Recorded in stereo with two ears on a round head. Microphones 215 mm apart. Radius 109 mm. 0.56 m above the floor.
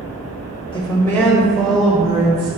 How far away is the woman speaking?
About 0.8 m.